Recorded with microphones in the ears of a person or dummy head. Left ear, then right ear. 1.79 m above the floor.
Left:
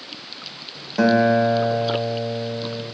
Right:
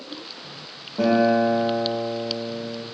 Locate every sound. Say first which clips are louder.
1.0 s a guitar: left 2 dB; 60° left (ahead or behind), 1.7 m